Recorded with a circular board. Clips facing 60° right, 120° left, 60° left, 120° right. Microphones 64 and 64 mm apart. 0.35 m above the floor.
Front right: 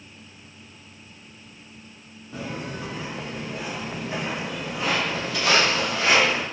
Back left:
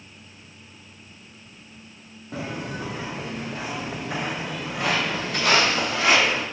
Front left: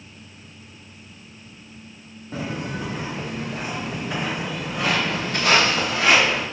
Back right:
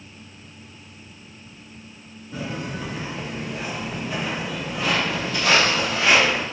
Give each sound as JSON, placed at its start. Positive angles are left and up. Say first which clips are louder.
{"t": 2.3, "sound": "footsteps", "louder": "back left 1 dB, front left 1 dB", "azimuth_deg": 100, "distance_m": 2.5}